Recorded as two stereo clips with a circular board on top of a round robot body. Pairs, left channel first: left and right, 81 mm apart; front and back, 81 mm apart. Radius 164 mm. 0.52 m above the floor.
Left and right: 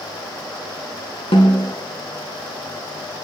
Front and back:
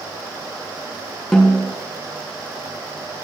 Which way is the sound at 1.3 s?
85° left.